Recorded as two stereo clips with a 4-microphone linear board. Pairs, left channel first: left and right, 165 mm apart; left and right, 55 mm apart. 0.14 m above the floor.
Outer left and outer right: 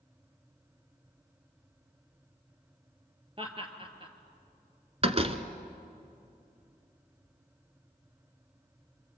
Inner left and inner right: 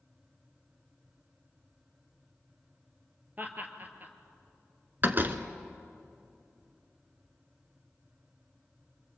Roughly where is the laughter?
Right.